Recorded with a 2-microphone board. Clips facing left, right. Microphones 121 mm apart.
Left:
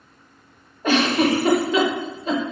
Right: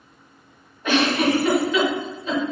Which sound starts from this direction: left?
A giggle, at 0.8 s.